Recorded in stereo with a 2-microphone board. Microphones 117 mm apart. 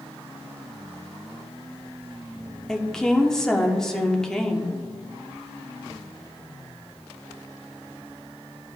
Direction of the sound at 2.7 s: 5° left (ahead or behind).